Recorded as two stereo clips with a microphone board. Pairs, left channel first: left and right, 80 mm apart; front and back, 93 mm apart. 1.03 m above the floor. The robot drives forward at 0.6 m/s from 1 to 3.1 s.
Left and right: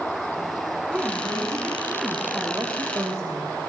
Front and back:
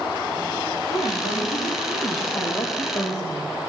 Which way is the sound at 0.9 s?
20° right.